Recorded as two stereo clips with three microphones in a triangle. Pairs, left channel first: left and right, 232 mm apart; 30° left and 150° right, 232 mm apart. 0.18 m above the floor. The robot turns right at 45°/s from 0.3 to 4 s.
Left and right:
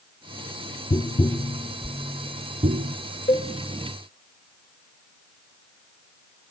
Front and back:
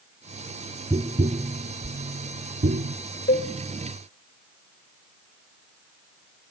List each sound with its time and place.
0.9 s tapping: 140° left, 0.5 m; by 3.0 s 125° right, 0.5 m
3.3 s a cowbell: 60° left, 1.0 m; by 3.5 s 70° left, 1.0 m